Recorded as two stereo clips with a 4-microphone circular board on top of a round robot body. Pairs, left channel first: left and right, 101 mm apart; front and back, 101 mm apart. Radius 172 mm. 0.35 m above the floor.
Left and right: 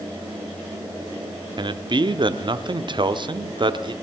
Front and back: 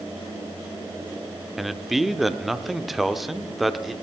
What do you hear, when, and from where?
1.6 s a man speaking: 90° right, 1.2 m